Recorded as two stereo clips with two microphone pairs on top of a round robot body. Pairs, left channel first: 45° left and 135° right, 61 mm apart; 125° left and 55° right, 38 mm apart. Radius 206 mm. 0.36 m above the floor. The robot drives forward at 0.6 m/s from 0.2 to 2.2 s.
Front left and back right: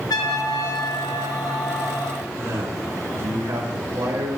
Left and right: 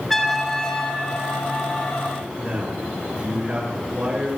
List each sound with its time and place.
0.1 s a trumpet: 40° left, 1.3 m; by 2.1 s 105° left, 0.9 m
2.4 s a man speaking: 100° right, 5 m